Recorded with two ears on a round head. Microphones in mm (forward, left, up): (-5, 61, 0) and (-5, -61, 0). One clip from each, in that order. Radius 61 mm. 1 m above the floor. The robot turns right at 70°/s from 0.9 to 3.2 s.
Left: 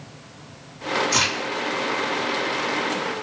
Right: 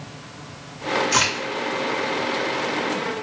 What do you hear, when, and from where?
1.1 s a crack: 5° right (ahead or behind), 1.9 m; by 1.5 s 15° left (ahead or behind), 1.9 m